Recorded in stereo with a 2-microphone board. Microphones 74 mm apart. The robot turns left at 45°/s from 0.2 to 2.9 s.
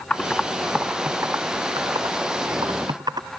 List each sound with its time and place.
0.1 s typing on a keyboard: 15° left (ahead or behind); by 3.3 s 70° right (ahead or behind)